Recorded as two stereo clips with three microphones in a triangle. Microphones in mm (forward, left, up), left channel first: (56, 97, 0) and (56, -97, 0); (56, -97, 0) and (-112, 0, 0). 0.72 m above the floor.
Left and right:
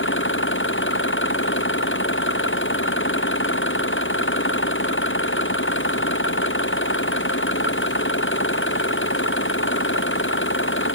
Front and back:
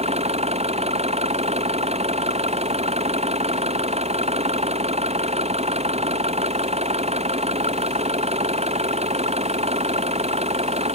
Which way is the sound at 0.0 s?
95° left.